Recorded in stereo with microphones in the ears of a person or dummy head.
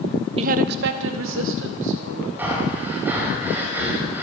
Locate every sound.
0.4 s a woman speaking: 30° right (ahead or behind), 0.7 m; by 2.3 s 75° right (ahead or behind), 3.5 m
2.4 s breathing: 10° right (ahead or behind), 4 m